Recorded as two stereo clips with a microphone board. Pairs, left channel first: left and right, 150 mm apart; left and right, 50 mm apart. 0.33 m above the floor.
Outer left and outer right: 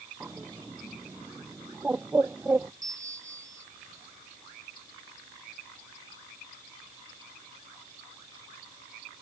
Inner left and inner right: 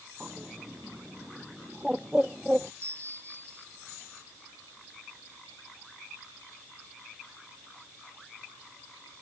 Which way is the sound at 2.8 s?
50° right (ahead or behind).